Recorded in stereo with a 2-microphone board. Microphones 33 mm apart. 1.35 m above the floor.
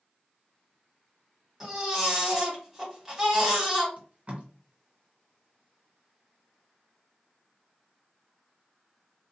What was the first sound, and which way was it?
A baby crying, 10° right (ahead or behind).